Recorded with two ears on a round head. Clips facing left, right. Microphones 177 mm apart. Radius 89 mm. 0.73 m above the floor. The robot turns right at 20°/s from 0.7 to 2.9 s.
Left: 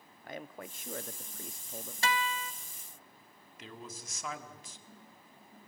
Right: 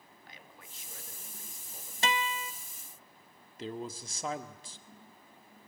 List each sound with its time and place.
0.2 s a man speaking: 45° left (ahead or behind), 1.1 m; by 1.9 s 55° left (ahead or behind), 1.1 m
2.0 s a guitar: 20° right (ahead or behind), 0.7 m; by 2.5 s 15° right (ahead or behind), 0.7 m
3.6 s a man speaking: 30° right (ahead or behind), 1.8 m